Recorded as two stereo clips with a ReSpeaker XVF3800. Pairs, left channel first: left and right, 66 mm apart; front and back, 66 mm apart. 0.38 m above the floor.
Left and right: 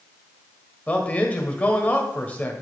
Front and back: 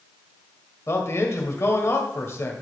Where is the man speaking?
30° left, 1.4 m.